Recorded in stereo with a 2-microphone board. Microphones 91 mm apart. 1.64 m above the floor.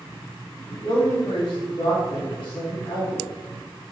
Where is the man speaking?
75° left (ahead or behind), 4 m.